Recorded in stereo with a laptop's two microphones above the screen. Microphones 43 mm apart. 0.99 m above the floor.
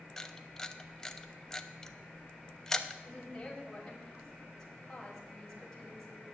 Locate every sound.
0.2 s a camera shutter: 10° left (ahead or behind), 0.7 m
3.0 s a woman speaking: 10° left (ahead or behind), 5 m